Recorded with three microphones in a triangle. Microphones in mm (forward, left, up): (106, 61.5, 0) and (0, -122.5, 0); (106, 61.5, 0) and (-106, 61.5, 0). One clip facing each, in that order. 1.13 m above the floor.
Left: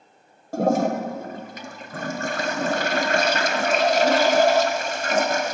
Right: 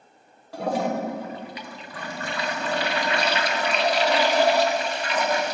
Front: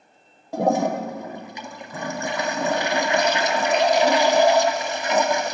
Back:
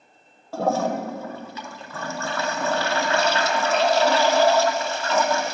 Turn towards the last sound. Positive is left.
turn(degrees=70)